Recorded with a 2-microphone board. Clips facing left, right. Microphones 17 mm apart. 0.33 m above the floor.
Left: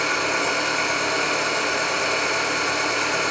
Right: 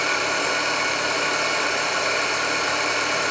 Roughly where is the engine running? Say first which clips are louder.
Even; centre.